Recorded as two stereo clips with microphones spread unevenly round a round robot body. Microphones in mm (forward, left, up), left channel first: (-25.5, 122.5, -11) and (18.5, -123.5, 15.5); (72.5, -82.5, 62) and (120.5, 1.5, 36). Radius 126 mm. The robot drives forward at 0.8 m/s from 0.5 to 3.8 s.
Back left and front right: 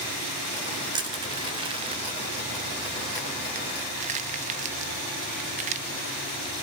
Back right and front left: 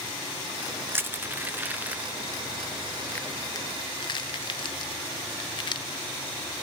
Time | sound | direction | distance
0.9 | crushing | 5° right | 2 m